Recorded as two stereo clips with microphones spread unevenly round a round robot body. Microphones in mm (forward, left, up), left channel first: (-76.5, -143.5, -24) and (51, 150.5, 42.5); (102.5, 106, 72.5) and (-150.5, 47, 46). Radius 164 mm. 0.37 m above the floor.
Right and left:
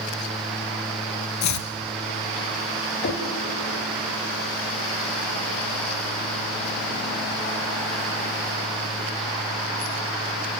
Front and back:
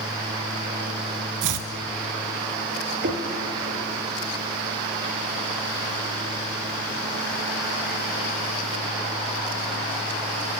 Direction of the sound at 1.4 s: 155° right.